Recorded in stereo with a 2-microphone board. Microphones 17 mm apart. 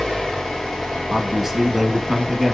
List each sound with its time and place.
0.0 s an engine running: 80° left, 2.5 m
1.1 s a man speaking: 15° right (ahead or behind), 1.0 m